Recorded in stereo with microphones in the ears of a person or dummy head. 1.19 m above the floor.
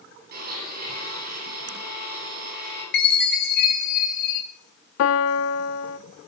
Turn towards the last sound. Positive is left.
turn(degrees=65)  # may be behind; listen again after turning